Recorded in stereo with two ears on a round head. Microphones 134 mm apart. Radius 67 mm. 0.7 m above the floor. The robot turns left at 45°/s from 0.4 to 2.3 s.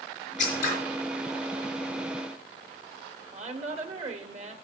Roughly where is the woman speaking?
Right.